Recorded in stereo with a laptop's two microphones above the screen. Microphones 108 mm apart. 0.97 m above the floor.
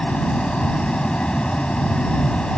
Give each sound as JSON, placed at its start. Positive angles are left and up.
{"t": 0.0, "sound": "a fan", "side_deg": 10}